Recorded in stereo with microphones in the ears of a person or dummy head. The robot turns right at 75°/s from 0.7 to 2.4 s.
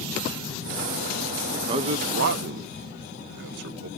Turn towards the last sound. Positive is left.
turn(degrees=-60)  # may be behind; listen again after turning